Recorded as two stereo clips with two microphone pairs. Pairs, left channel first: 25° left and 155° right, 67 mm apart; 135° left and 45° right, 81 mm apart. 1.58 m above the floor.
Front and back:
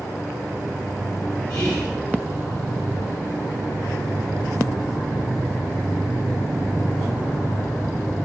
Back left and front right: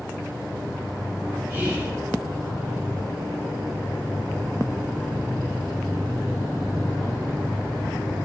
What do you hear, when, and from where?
1.5 s whispering: 10° left, 0.9 m